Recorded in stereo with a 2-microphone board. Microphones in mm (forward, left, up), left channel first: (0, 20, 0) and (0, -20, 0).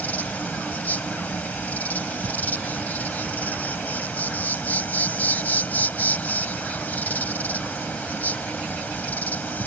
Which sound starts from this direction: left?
An insect, at 0.0 s.